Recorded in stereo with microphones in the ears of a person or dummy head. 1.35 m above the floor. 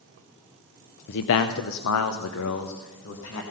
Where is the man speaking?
60° left (ahead or behind), 0.6 m; by 3.4 s 65° left (ahead or behind), 1.6 m.